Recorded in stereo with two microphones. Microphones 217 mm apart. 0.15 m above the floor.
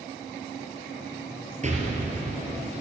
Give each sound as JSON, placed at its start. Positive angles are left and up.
{"t": 1.6, "sound": "an explosion", "side_deg": -35, "distance_m": 3.5}